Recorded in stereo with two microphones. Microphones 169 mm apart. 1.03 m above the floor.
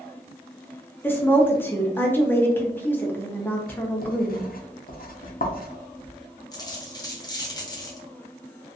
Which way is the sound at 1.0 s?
10° left (ahead or behind).